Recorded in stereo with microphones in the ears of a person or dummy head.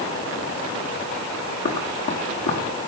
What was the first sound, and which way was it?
Running footsteps, 45° left (ahead or behind).